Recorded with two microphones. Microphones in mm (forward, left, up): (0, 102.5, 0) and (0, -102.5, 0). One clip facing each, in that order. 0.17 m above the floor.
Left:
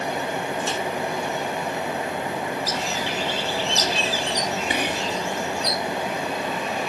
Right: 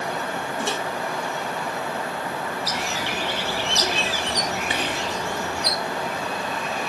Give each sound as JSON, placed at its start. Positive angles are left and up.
{"t": 0.6, "sound": "a microwave", "side_deg": -65, "distance_m": 3.0}
{"t": 2.7, "sound": "a bird", "side_deg": -65, "distance_m": 3.0}
{"t": 4.7, "sound": "whispering", "side_deg": 15, "distance_m": 2.5}